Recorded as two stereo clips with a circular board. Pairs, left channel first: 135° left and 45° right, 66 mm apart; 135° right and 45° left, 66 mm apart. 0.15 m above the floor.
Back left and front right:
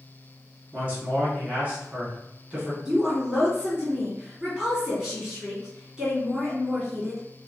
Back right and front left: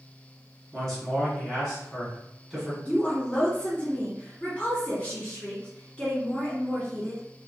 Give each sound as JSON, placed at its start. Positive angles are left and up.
{"t": 0.7, "sound": "a man speaking", "azimuth_deg": -50, "distance_m": 1.3}
{"t": 2.9, "sound": "a woman speaking", "azimuth_deg": -110, "distance_m": 1.3}